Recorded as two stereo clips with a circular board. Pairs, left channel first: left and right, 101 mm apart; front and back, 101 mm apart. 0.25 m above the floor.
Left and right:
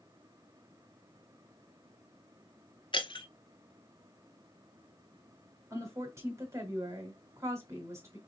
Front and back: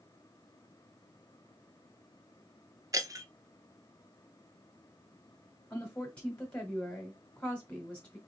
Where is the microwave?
I don't hear a microwave.